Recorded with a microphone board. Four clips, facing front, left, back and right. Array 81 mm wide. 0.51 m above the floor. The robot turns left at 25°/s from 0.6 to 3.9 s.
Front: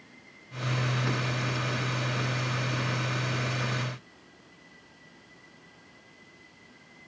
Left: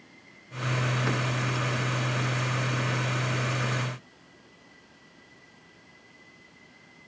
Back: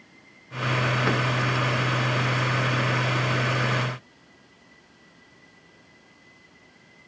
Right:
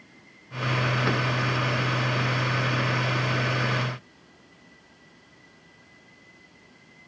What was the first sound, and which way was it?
Only background noise.